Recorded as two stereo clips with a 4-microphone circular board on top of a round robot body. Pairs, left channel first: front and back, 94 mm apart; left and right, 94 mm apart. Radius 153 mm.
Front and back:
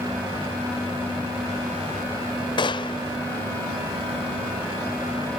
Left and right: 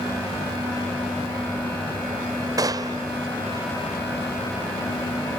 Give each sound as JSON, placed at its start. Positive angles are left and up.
{"t": 2.6, "sound": "a gunshot", "azimuth_deg": -40}